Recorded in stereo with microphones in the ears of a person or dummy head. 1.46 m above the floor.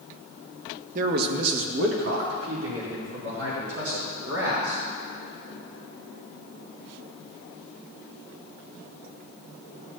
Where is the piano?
I don't hear a piano.